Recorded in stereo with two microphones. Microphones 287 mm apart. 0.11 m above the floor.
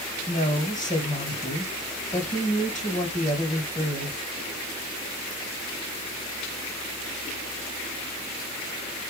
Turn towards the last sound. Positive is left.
turn(degrees=25)  # may be behind; listen again after turning